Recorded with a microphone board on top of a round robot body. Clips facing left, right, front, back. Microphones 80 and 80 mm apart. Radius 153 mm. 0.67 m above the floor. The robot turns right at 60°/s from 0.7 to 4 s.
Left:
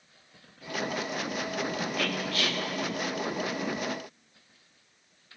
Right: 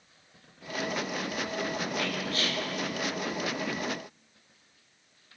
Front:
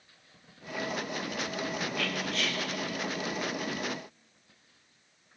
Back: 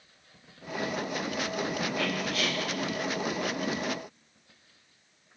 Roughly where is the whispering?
Behind right.